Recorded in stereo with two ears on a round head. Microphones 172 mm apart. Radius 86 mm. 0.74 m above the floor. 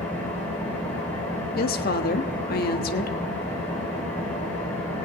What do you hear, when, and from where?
0.0 s an engine running: 10° left (ahead or behind), 9.5 m
1.6 s a woman speaking: 50° left (ahead or behind), 1.4 m